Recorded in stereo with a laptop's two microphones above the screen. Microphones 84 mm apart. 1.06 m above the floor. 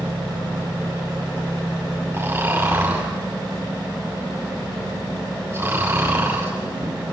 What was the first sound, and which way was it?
Snoring, 30° right (ahead or behind).